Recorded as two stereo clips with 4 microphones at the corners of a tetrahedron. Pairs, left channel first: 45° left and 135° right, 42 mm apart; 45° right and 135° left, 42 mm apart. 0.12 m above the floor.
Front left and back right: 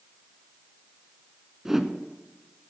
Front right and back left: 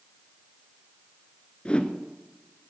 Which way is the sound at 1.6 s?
65° right.